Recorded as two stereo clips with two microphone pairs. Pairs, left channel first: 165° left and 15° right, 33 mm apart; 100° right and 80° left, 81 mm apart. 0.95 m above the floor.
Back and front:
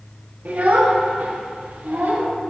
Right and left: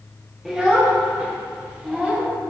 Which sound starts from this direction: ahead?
A child speaking, at 0.5 s.